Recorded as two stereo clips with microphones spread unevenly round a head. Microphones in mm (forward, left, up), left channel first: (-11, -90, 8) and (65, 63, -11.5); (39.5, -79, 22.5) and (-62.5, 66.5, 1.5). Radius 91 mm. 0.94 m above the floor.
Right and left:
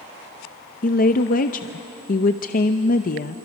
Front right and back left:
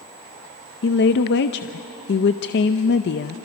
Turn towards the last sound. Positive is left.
turn(degrees=-80)